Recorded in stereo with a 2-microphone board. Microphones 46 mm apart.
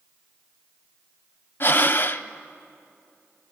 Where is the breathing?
45° left (ahead or behind), 0.6 m.